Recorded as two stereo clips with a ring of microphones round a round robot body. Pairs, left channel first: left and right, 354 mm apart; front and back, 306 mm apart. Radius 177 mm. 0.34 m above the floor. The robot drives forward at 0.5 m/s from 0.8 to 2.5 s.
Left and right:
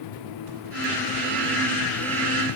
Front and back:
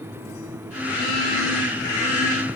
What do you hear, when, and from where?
Only background noise.